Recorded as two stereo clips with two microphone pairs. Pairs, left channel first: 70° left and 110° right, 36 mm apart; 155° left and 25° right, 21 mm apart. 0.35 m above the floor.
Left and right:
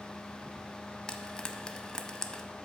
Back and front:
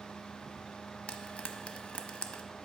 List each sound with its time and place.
1.1 s frying: 145° left, 0.6 m